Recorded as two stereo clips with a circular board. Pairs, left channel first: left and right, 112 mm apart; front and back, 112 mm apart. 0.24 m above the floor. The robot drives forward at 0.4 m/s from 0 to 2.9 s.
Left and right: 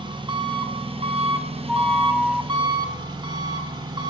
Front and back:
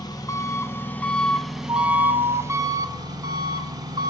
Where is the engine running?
50° right, 1.0 m; by 4.1 s 130° right, 1.0 m.